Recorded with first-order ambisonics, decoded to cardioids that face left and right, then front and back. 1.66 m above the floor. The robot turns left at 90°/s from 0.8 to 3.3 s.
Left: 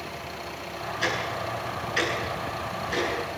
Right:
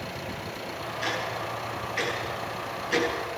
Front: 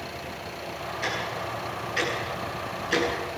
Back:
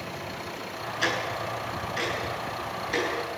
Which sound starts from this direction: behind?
Ticking, at 1.0 s.